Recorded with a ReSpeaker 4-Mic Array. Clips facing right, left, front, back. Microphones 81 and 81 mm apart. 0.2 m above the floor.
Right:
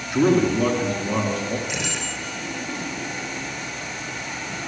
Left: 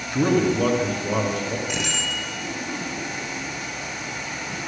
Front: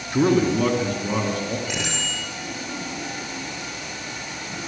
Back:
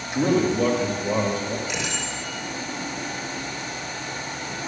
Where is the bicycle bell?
45° left, 5.5 m.